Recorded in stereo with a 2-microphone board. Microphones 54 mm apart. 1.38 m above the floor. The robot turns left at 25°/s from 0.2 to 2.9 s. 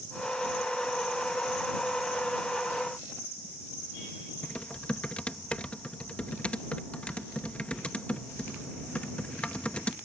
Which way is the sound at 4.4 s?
25° left (ahead or behind).